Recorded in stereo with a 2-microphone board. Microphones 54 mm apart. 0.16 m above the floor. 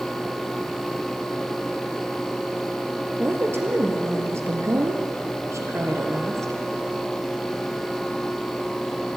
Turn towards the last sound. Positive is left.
turn(degrees=-65)  # may be behind; listen again after turning